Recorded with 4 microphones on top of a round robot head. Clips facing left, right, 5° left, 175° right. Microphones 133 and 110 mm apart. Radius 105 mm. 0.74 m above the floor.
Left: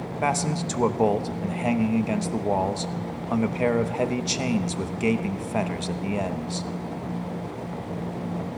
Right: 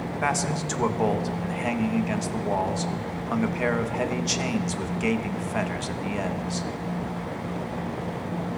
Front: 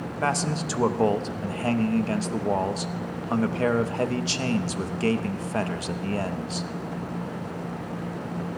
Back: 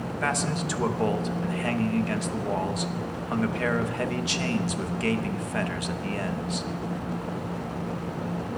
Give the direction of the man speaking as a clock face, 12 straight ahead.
11 o'clock.